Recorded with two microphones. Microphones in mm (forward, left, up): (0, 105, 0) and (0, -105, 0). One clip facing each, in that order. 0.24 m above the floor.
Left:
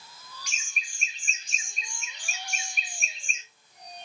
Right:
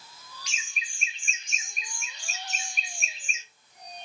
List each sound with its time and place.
0.5 s laughter: 45° left (ahead or behind), 1.7 m; by 3.4 s 5° right (ahead or behind), 1.5 m